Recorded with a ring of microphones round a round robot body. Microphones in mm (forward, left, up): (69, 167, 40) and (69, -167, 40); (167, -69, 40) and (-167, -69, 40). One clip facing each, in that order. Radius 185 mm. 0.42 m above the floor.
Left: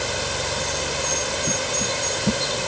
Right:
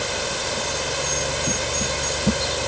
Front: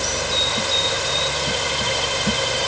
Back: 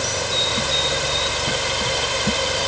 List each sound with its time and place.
Only background noise.